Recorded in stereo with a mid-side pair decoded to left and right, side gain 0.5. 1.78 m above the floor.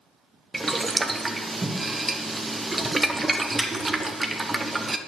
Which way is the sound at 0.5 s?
20° right.